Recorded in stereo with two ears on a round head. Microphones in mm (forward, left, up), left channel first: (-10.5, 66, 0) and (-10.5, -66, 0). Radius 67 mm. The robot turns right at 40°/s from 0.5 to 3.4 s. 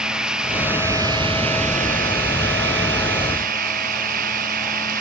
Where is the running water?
175° right; by 5.0 s 60° right.